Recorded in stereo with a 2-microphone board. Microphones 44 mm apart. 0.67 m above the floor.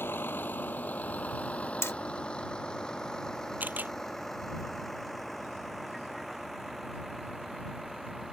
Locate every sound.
0.0 s a vehicle: 55° left (ahead or behind); by 8.3 s 5° right (ahead or behind)
1.8 s hammering: 75° left (ahead or behind)
3.6 s a camera shutter: 40° right (ahead or behind)